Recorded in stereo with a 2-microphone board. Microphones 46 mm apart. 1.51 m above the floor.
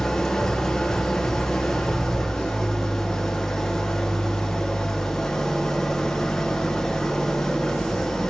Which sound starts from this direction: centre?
An engine running, at 0.0 s.